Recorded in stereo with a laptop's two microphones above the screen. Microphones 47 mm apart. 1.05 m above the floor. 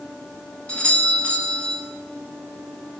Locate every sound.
0.7 s a doorbell: 20° left (ahead or behind), 1.8 m